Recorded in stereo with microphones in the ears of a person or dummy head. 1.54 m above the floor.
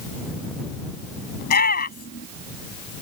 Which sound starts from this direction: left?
A shout, at 1.4 s.